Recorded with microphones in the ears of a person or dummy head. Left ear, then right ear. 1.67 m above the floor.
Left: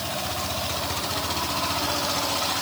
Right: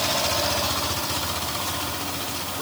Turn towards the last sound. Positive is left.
No sound to turn to.